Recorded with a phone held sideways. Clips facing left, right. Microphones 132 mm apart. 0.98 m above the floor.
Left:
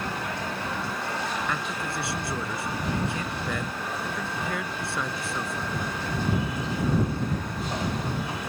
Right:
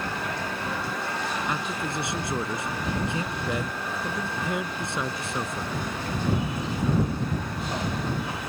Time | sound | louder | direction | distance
1.5 | a man speaking | right 1 dB | 20° right (ahead or behind) | ?